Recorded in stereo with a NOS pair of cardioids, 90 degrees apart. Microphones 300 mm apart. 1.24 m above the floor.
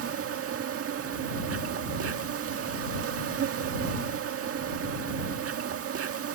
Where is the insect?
50° right.